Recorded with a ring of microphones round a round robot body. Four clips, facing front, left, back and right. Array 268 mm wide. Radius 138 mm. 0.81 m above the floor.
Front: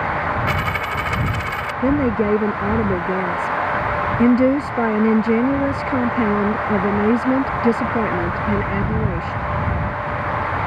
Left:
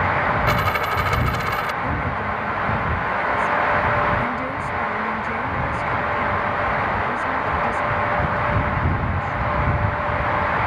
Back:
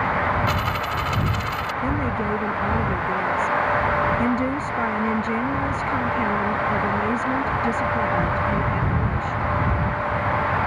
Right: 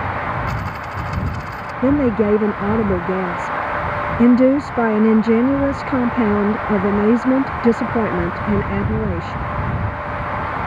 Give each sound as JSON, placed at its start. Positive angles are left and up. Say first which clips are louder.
{"t": 0.5, "sound": "a dropped coin", "louder": "left 5 dB, front 2 dB", "azimuth_deg": 75}
{"t": 1.8, "sound": "a woman speaking", "louder": "right 9 dB, front 9 dB", "azimuth_deg": -70}